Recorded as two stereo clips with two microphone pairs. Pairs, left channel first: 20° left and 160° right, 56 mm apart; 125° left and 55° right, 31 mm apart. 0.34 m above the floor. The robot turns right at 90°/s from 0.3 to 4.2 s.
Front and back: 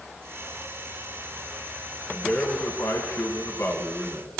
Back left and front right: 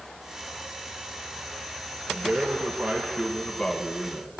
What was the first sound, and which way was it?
A man speaking, 80° right.